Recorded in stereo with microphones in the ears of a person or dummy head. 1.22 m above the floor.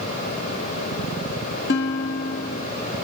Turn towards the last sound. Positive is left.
turn(degrees=65)  # may be behind; listen again after turning